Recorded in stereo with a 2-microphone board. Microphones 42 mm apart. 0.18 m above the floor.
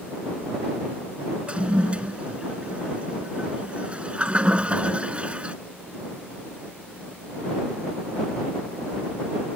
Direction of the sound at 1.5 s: 30° right (ahead or behind).